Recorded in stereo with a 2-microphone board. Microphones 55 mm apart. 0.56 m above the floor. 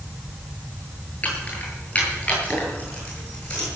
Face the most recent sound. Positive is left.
turn(degrees=20)  # may be behind; listen again after turning